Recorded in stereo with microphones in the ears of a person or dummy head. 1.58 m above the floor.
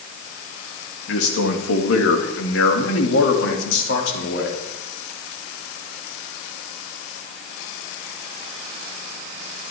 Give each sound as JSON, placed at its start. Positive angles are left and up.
{"t": 1.1, "sound": "a man speaking", "side_deg": 75, "distance_m": 2.0}